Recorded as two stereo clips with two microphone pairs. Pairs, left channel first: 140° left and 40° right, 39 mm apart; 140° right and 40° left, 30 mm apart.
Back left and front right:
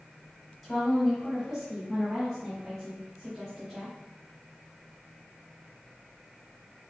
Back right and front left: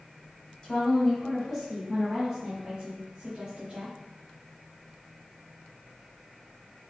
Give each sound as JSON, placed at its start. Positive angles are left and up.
{"t": 0.6, "sound": "a woman speaking", "azimuth_deg": -135, "distance_m": 1.6}